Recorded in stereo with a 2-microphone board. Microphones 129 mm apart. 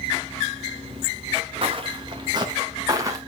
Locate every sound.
1.6 s footsteps: 45° right (ahead or behind), 1.7 m; by 3.2 s 25° right (ahead or behind), 2.5 m